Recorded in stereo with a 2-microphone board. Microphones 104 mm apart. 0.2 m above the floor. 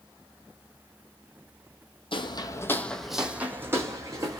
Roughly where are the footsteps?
Left.